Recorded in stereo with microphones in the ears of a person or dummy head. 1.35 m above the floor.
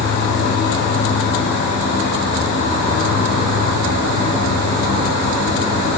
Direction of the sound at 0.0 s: 55° left (ahead or behind).